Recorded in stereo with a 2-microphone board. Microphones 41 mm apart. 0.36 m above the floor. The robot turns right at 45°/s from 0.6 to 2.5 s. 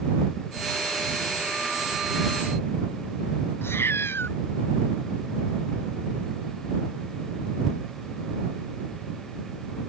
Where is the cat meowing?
80° left.